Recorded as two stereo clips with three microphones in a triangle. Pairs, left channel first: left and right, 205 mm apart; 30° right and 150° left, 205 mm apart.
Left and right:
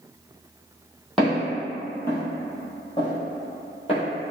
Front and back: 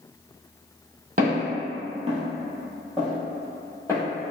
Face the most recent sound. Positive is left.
turn(degrees=35)